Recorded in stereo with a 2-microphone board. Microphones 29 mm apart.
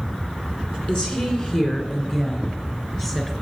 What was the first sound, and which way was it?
A woman speaking, 35° left (ahead or behind).